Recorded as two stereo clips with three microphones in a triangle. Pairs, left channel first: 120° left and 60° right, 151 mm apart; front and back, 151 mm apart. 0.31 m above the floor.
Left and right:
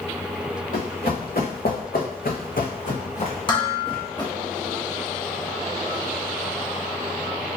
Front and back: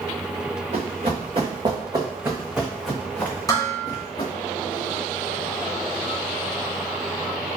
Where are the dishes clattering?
65° left, 1.5 m.